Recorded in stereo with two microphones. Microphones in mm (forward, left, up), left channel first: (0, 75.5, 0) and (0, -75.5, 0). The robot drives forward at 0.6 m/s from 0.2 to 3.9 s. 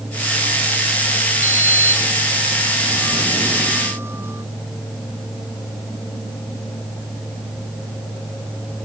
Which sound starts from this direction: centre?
A sliding door, at 1.4 s.